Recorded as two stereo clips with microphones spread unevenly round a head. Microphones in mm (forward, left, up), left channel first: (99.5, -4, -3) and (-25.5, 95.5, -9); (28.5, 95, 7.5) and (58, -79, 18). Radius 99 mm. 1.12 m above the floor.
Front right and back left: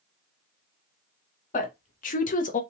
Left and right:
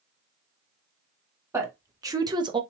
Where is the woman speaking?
5° right, 1.7 m; by 2.6 s 25° right, 0.8 m.